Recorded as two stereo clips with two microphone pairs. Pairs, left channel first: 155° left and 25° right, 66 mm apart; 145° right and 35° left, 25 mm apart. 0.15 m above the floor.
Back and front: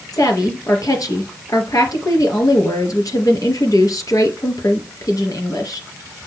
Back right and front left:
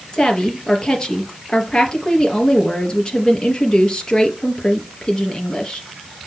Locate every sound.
0.1 s a woman speaking: 165° left, 3.5 m